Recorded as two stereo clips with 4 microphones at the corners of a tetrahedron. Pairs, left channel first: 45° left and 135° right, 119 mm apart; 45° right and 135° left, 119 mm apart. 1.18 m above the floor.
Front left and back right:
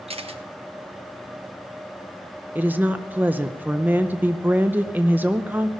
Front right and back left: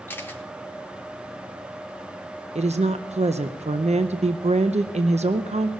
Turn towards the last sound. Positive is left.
turn(degrees=150)